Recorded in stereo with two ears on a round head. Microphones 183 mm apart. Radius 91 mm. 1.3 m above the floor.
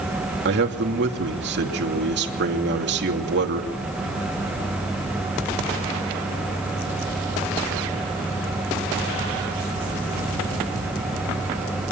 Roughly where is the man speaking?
Right.